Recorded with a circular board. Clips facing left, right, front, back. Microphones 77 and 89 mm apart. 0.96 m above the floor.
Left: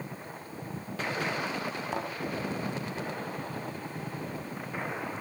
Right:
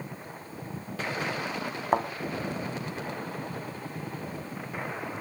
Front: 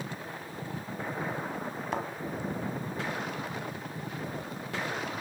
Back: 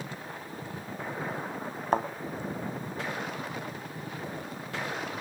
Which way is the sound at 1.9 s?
130° right.